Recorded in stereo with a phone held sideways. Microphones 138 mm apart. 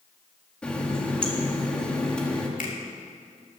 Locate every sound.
0.6 s a running tap: 10° left (ahead or behind), 1.6 m
2.6 s a finger snap: 85° left, 2.5 m